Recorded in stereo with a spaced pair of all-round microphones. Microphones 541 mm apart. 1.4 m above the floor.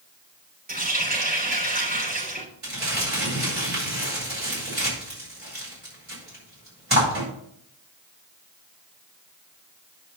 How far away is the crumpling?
About 6 m.